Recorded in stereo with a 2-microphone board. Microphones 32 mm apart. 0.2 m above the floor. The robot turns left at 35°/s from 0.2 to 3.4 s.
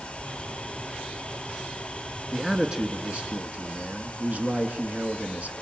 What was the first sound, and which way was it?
A man speaking, 10° right.